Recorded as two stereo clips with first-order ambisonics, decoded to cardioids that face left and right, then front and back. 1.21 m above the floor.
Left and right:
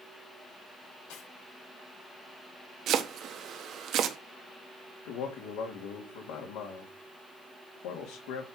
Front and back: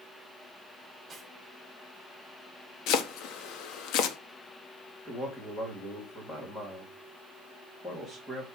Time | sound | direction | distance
1.1 | cutlery clinking | 95° left | 5 m
2.9 | chopping | 35° right | 1.1 m
5.0 | a man speaking | 75° left | 2.5 m